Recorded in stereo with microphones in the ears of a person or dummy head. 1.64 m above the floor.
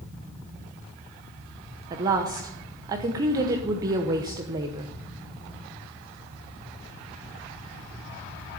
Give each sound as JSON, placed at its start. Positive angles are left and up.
{"t": 0.0, "sound": "a fan", "side_deg": -25, "distance_m": 2.0}
{"t": 1.9, "sound": "a woman speaking", "side_deg": -25, "distance_m": 0.8}